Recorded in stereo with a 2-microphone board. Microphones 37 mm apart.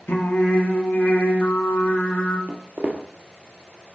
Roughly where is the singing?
Left.